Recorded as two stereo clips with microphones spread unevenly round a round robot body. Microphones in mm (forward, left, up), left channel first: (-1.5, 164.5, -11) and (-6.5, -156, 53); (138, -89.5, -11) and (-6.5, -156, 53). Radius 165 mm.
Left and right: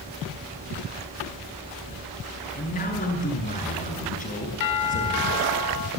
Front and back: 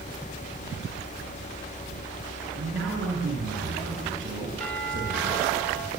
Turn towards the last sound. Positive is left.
turn(degrees=100)